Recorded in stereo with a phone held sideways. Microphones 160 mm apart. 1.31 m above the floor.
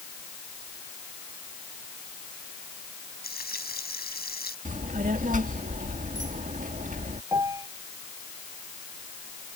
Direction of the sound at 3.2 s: 80° left.